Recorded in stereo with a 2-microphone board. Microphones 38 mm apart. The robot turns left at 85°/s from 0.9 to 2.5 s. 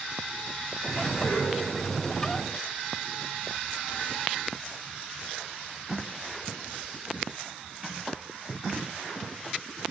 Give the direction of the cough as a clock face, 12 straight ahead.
9 o'clock.